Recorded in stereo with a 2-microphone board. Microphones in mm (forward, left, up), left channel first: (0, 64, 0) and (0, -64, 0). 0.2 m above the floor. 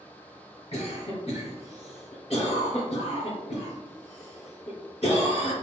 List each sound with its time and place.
0.7 s a cough: 45° left (ahead or behind), 2 m